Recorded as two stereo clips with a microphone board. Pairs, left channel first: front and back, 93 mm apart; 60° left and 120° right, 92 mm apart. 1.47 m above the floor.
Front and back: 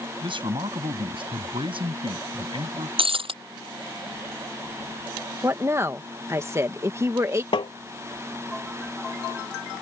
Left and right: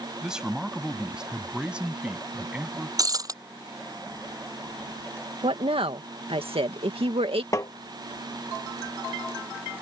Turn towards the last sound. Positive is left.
turn(degrees=10)